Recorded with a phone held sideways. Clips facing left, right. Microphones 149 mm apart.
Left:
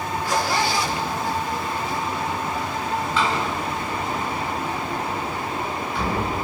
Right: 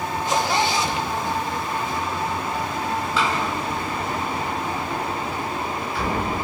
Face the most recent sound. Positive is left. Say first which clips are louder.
# even
turn(degrees=-5)  # may be behind; listen again after turning